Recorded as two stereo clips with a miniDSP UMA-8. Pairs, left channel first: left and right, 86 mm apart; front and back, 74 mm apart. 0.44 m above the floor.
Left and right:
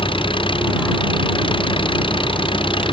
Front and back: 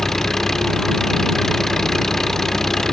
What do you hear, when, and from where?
0.0 s an engine running: 85° left